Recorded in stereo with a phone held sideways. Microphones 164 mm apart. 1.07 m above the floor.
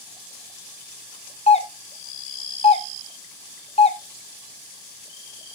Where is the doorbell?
35° left (ahead or behind), 0.9 m.